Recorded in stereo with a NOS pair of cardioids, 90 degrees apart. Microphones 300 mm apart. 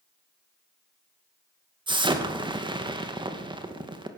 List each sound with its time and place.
1.9 s an explosion: 15° right, 2.5 m